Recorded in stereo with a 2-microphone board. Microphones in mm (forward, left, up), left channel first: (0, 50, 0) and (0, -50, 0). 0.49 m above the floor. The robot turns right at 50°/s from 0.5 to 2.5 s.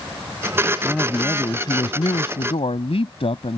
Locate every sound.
0.8 s a man speaking: 5° left; by 3.6 s 90° left